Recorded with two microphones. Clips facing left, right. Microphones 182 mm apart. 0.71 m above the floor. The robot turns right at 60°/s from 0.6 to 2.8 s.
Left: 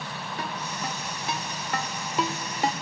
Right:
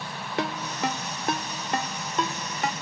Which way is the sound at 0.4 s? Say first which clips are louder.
Right 7 dB; 75° right (ahead or behind).